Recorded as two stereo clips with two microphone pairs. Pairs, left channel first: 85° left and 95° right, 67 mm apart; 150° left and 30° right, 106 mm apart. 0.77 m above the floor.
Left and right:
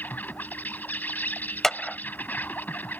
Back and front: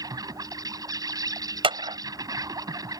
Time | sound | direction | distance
0.0 | an insect | 20° left | ?
1.6 | a clap | straight ahead | ?